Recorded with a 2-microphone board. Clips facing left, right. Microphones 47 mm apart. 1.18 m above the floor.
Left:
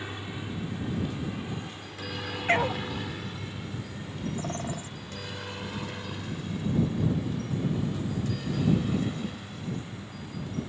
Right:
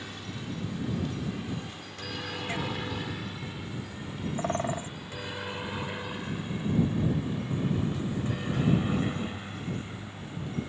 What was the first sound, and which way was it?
A helicopter, 20° left (ahead or behind).